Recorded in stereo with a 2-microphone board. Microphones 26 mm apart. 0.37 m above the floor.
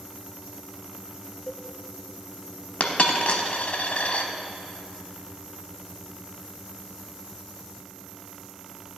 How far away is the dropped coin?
About 0.8 m.